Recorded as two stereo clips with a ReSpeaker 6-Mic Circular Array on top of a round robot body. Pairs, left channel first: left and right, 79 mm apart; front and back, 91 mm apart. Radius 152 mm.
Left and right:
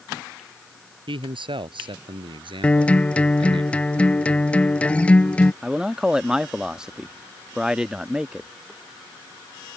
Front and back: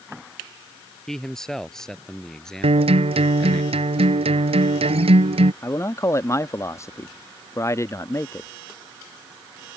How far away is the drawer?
No drawer in this recording.